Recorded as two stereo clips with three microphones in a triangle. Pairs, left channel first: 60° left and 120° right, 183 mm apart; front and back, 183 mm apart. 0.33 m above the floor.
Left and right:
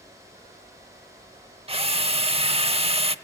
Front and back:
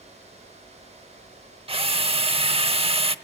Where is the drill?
150° right, 0.9 m.